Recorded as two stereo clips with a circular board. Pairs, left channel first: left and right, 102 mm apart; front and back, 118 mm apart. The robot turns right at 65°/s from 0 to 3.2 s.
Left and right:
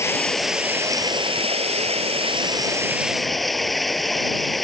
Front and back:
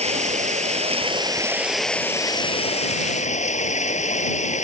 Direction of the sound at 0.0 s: 155° left.